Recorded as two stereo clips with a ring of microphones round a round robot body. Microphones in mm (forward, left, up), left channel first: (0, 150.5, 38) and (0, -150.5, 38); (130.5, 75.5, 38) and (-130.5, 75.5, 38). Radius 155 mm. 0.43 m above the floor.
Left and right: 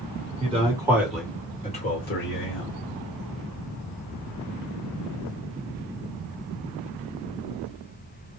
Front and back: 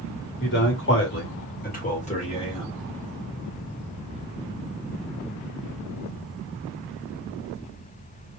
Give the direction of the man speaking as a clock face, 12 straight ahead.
1 o'clock.